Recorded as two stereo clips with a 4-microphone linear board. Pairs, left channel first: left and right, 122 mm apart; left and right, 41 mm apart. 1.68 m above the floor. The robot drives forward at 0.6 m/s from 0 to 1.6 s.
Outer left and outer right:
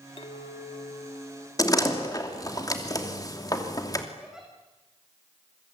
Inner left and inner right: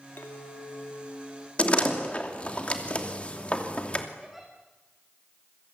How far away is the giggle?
About 7 m.